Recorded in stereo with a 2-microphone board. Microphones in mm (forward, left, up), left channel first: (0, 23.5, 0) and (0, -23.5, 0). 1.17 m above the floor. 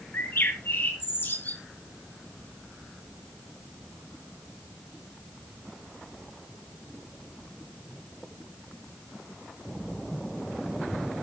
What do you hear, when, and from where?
0.1 s a bird: 55° left (ahead or behind), 4.5 m